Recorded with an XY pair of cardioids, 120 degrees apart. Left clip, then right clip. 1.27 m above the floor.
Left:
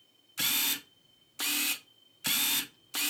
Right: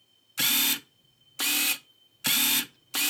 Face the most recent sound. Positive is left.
turn(degrees=-30)